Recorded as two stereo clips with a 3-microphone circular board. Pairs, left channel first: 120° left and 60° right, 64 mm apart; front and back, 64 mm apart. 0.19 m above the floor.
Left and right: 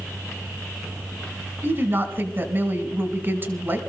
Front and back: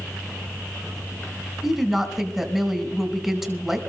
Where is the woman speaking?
95° right, 1.3 m.